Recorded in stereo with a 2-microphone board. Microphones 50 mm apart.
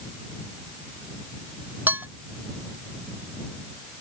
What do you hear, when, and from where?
1.9 s dishes clattering: 45° right (ahead or behind)